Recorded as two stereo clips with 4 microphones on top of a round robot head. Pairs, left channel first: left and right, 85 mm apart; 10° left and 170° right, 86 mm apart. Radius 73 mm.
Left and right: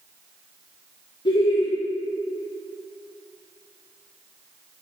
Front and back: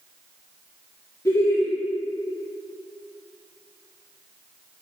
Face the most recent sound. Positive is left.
turn(degrees=65)